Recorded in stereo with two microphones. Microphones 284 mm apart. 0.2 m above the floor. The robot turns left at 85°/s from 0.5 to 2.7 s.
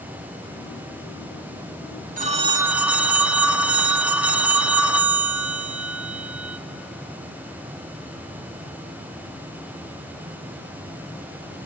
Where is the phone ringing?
125° right, 0.8 m; by 6.6 s 170° right, 0.8 m.